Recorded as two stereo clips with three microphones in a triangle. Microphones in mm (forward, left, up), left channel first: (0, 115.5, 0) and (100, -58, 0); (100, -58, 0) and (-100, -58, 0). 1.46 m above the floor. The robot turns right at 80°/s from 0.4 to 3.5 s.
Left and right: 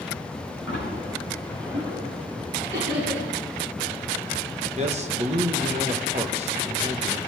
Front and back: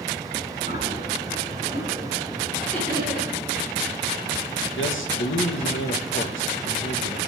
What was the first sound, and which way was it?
A splash, 130° left.